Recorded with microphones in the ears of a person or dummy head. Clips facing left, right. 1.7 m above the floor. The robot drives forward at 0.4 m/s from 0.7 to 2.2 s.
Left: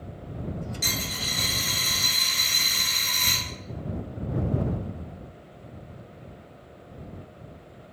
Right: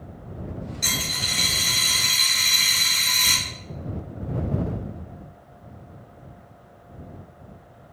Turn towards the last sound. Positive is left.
turn(degrees=55)  # may be behind; listen again after turning